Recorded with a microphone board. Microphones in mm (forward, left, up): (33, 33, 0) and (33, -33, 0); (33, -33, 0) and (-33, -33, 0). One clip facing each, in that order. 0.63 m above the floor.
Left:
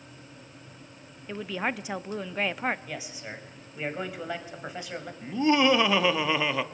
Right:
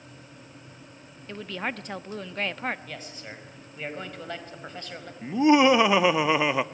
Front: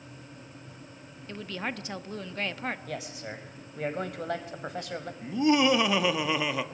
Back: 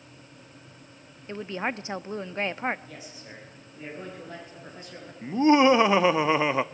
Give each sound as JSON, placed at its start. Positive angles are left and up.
{"t": 1.3, "sound": "a woman speaking", "azimuth_deg": 160, "distance_m": 0.5}
{"t": 2.9, "sound": "a man speaking", "azimuth_deg": 10, "distance_m": 3.0}
{"t": 5.2, "sound": "laughter", "azimuth_deg": -145, "distance_m": 0.7}